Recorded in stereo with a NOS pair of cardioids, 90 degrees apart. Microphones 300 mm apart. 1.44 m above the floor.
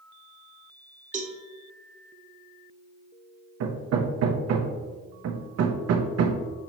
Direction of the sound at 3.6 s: 60° right.